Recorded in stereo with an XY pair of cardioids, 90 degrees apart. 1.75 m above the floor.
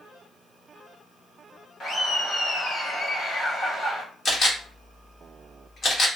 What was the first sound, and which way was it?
Laughter, 55° left.